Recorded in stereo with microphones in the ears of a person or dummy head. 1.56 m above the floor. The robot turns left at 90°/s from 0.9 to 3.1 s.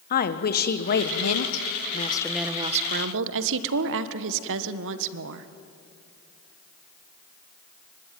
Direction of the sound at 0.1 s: 130° left.